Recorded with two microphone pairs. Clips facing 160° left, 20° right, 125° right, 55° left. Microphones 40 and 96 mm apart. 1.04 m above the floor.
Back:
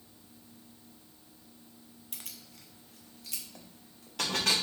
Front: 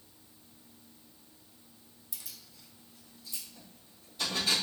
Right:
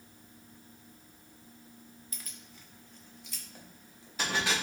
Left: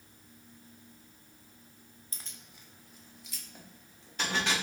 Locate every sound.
2.1 s keys jangling: 115° left, 0.6 m; by 4.5 s 155° left, 1.6 m